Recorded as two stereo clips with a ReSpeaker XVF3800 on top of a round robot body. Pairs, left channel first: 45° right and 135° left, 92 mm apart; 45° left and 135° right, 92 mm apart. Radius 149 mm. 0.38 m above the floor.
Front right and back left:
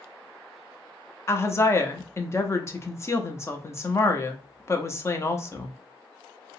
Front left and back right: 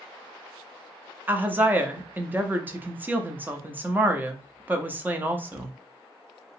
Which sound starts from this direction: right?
A woman speaking, at 1.3 s.